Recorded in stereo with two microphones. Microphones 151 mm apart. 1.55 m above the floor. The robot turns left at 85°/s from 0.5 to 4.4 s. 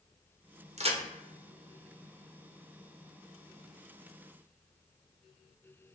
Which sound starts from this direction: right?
A crack, at 0.8 s.